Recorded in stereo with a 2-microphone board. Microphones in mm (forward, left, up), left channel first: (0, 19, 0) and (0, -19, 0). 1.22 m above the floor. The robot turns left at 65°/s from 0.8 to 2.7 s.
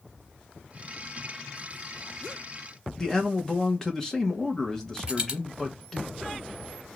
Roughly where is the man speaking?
Centre.